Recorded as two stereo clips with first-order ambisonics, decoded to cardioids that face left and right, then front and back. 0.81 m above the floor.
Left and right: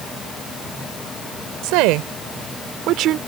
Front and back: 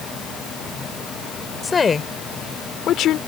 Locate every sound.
1.6 s a woman speaking: 75° right; by 3.2 s 45° right